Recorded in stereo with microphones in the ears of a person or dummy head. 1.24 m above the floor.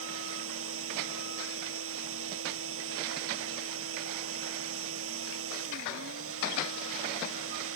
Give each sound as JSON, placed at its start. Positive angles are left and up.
{"t": 0.0, "sound": "a machine running", "side_deg": -85}